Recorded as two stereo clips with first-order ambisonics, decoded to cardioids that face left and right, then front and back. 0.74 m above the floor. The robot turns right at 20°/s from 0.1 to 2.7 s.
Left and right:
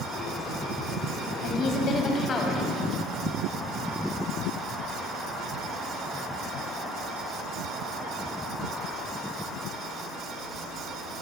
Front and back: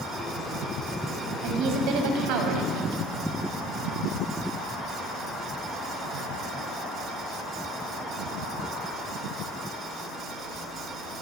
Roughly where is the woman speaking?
Behind left.